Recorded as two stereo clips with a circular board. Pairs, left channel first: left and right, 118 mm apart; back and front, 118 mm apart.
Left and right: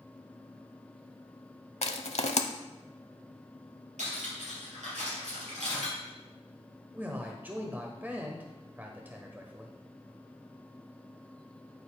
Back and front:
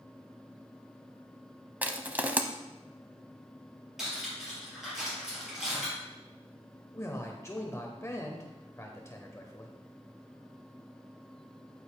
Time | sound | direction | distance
1.8 | crushing | 75° left | 0.7 m
4.0 | cutlery clinking | 85° right | 4.5 m
6.9 | a man speaking | 150° right | 1.1 m